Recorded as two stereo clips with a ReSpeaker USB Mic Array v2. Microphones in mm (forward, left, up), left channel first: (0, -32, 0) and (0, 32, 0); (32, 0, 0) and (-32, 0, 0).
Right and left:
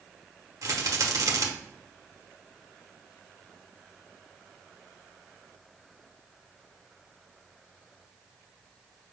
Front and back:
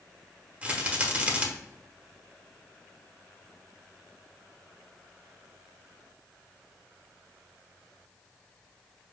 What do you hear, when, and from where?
0.6 s a rattle: 110° left, 1.2 m